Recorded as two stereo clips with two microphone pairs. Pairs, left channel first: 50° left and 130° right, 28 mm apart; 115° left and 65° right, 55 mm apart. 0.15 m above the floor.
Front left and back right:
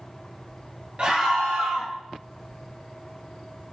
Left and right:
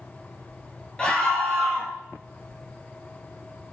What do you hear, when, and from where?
1.0 s a scream: straight behind, 3 m